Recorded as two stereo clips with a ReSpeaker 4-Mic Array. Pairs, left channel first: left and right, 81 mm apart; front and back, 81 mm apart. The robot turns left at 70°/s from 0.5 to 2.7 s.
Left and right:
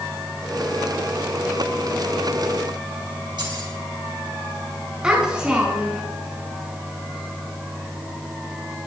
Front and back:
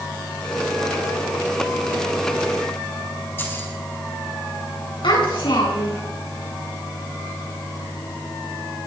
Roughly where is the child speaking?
Ahead.